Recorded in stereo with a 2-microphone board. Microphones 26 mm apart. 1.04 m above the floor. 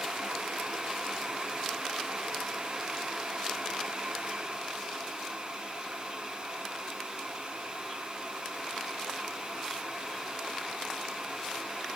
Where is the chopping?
No chopping in this recording.